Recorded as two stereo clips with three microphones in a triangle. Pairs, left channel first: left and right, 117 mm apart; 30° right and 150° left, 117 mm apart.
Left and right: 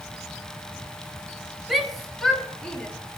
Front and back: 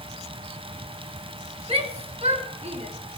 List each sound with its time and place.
1.7 s a shout: straight behind, 3 m; by 2.9 s 170° left, 4 m